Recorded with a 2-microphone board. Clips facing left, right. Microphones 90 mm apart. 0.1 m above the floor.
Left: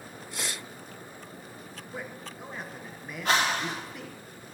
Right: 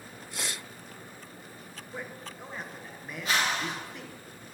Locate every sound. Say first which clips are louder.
1.9 s a man speaking: left 1 dB; 5° left (ahead or behind), 1.1 m
3.2 s a whoosh: left 3 dB; 60° left (ahead or behind), 3.5 m